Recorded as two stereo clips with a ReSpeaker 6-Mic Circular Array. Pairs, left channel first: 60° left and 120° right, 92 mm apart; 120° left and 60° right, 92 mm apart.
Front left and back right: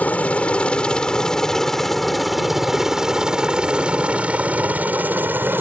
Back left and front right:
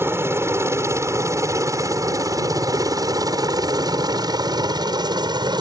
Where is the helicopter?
10° right; by 5.6 s 60° right.